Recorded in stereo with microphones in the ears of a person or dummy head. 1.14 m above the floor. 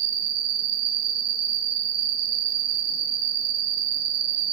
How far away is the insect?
About 2.5 m.